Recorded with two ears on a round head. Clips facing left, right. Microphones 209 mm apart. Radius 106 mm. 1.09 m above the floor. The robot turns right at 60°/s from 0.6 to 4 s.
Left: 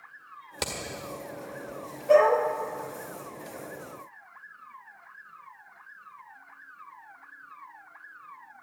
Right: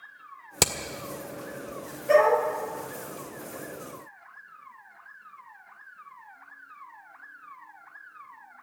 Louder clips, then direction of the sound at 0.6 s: Right 6 dB; 60° right (ahead or behind).